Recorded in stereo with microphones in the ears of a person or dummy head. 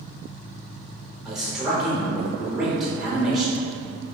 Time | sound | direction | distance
1.2 | a man speaking | centre (ahead or behind) | 0.8 m